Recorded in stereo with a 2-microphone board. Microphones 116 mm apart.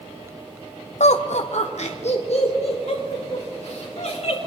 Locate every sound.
1.0 s laughter: 80° left, 0.5 m; by 4.4 s 65° left (ahead or behind), 4 m